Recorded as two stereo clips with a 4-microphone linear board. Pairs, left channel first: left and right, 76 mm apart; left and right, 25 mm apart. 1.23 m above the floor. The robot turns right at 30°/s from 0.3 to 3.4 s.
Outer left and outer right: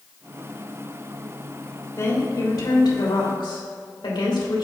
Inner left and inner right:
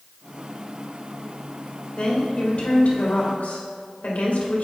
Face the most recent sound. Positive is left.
turn(degrees=80)